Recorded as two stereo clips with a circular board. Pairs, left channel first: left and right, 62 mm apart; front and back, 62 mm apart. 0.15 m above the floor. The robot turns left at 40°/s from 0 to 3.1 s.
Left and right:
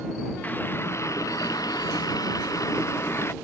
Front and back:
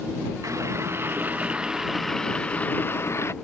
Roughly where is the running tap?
Behind left.